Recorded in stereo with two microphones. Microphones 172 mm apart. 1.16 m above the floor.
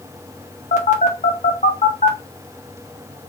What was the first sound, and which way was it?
A phone buzzing, 45° left (ahead or behind).